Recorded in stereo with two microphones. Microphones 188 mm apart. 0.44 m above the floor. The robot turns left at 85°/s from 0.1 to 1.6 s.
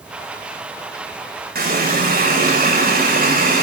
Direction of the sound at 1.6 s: 55° right (ahead or behind).